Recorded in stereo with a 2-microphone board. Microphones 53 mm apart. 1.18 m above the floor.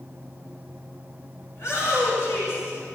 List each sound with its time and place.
1.5 s a shout: 60° left (ahead or behind), 6 m